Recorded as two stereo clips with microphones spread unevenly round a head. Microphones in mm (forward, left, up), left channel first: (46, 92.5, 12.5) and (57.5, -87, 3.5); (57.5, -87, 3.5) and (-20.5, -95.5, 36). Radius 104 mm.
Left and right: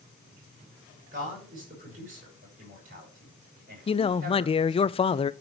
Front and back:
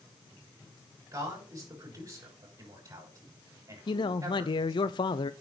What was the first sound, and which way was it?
A man speaking, 140° right.